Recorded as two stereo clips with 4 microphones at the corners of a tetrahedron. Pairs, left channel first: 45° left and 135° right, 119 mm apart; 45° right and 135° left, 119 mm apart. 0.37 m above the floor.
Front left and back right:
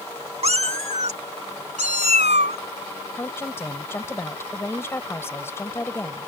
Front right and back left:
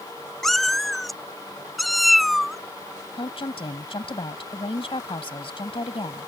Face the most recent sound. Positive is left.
turn(degrees=-20)